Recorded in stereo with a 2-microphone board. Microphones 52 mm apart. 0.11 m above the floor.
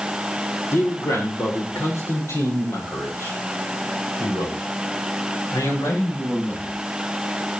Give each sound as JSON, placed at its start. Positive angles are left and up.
{"t": 0.7, "sound": "a man speaking", "side_deg": 70, "distance_m": 5.5}